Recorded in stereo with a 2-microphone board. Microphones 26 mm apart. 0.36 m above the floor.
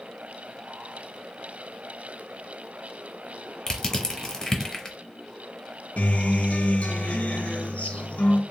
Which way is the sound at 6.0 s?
85° left.